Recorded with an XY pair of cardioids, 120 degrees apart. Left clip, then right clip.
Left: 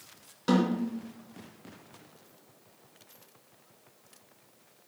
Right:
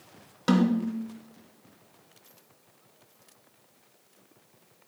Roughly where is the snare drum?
Ahead right.